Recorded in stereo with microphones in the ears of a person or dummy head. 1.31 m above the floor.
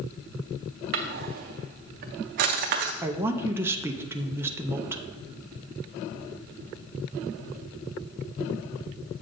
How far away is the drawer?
About 0.5 m.